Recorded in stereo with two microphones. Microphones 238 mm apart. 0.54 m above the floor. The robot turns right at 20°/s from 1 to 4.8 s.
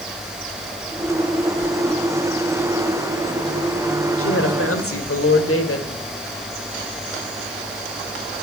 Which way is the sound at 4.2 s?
60° left (ahead or behind).